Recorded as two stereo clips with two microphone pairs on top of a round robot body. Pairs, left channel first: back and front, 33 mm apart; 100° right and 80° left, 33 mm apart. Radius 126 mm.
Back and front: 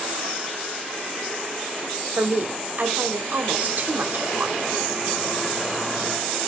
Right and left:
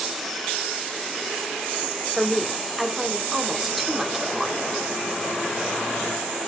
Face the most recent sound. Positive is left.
turn(degrees=0)